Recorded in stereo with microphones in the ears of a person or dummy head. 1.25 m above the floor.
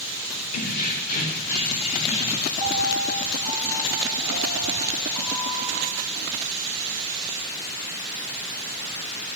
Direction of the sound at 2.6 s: 35° right (ahead or behind).